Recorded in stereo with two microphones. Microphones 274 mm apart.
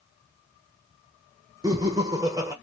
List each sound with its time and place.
1.6 s laughter: 15° right (ahead or behind), 0.9 m